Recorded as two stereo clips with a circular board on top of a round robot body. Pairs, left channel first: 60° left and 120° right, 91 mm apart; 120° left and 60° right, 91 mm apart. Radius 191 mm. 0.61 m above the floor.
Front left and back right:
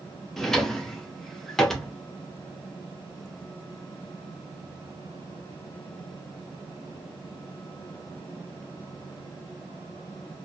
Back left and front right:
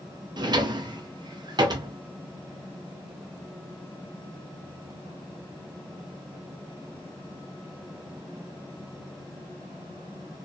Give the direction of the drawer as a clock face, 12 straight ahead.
1 o'clock.